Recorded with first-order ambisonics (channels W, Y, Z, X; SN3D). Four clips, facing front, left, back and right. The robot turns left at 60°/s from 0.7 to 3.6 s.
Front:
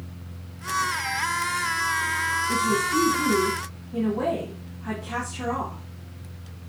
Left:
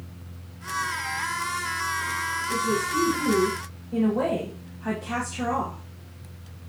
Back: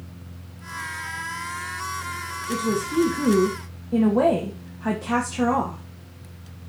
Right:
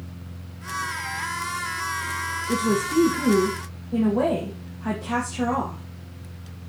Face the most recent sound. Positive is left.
turn(degrees=-165)